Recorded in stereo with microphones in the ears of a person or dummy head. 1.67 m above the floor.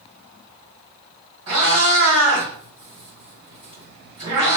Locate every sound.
1.5 s a cat meowing: 35° right (ahead or behind), 2.0 m